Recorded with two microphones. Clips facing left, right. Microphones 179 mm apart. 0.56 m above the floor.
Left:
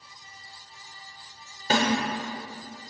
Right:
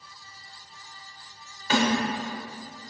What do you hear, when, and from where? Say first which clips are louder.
1.7 s a snare drum: right 1 dB; 40° left (ahead or behind), 0.8 m